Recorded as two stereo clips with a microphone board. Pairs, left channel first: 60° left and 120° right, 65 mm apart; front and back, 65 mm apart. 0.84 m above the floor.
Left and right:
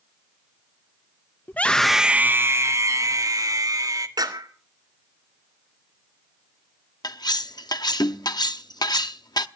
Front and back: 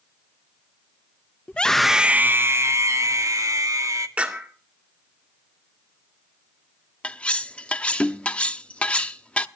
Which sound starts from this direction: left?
Cutlery clinking, at 7.0 s.